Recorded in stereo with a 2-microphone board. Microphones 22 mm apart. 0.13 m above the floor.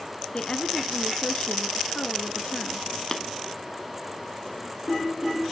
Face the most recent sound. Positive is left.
turn(degrees=15)  # may be behind; listen again after turning